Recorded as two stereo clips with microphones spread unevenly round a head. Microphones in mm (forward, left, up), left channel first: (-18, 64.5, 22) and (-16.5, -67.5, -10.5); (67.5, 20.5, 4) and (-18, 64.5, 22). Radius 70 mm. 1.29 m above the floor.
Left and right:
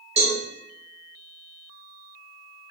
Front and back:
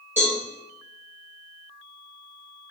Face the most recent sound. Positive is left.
turn(degrees=-140)